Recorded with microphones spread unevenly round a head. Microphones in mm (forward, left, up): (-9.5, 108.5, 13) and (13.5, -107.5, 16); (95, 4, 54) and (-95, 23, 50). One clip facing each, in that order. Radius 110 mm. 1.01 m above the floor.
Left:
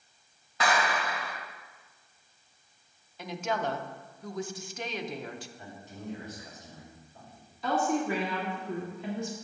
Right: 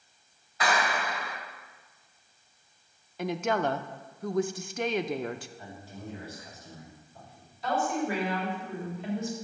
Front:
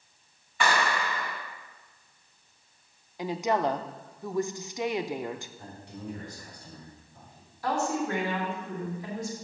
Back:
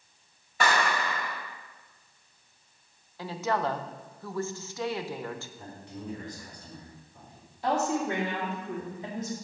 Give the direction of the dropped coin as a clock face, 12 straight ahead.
I don't hear a dropped coin.